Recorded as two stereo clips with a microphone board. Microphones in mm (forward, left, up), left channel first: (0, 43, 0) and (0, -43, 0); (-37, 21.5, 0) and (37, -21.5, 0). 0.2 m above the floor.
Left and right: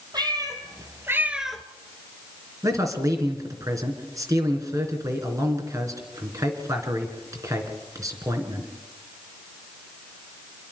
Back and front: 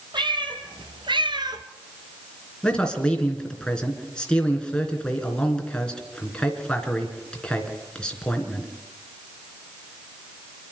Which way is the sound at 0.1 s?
55° right.